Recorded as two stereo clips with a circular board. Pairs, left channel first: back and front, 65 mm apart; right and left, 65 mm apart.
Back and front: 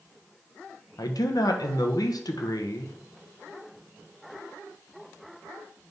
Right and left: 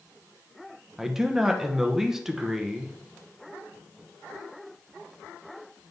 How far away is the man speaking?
About 1.1 m.